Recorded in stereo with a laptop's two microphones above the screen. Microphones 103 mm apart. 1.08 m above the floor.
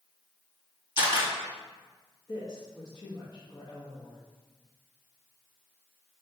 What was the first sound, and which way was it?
A camera shutter, 55° left (ahead or behind).